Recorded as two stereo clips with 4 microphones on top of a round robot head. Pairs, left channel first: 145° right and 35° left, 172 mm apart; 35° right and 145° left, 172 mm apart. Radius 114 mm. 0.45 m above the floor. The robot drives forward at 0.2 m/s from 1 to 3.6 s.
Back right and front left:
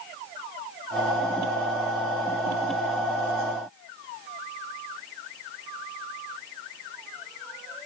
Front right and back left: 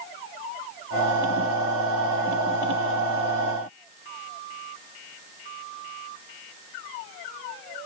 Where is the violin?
No violin in this recording.